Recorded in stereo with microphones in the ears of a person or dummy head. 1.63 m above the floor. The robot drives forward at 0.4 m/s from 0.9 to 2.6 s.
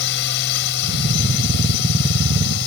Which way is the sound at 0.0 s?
60° left (ahead or behind).